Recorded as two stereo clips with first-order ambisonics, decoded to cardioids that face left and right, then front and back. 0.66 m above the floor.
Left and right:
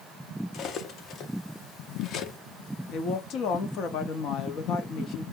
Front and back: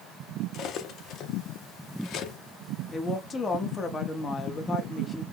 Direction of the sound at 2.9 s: 65° left.